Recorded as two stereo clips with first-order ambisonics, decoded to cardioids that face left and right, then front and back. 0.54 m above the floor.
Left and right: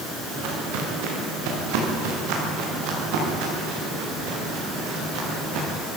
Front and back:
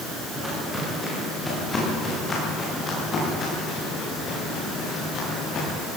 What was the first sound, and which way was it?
Footsteps, 95° right.